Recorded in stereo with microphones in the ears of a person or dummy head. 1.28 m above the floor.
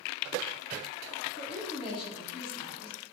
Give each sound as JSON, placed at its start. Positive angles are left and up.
{"t": 1.4, "sound": "a woman speaking", "side_deg": 25, "distance_m": 0.7}